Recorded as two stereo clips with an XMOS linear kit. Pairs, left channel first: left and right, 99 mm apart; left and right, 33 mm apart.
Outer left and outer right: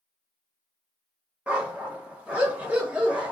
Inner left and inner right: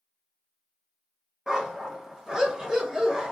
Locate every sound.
1.5 s a dog barking: 15° right (ahead or behind), 0.8 m